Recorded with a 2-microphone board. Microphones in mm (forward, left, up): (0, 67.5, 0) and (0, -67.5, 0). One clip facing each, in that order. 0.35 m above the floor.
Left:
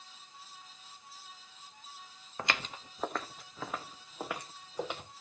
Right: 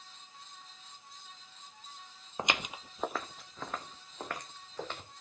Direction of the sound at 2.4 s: 20° right (ahead or behind).